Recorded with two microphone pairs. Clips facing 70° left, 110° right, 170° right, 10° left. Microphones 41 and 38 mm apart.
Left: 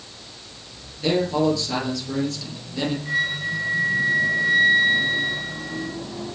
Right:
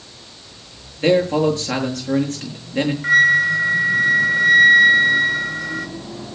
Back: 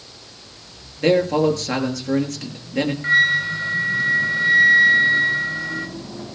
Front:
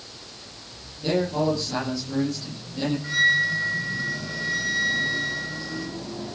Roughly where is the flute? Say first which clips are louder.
Right 15 dB, back 4 dB; behind right.